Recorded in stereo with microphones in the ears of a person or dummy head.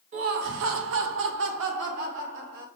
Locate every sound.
0.1 s laughter: 35° right (ahead or behind), 0.5 m; by 2.6 s 55° right (ahead or behind), 1.6 m